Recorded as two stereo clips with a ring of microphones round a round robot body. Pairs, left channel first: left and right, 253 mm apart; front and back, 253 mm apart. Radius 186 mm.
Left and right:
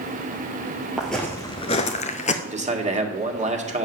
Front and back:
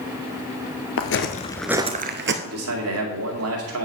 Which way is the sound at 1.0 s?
5° right.